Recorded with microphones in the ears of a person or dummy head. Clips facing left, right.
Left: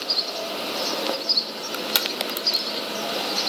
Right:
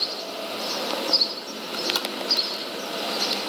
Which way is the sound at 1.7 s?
30° left (ahead or behind).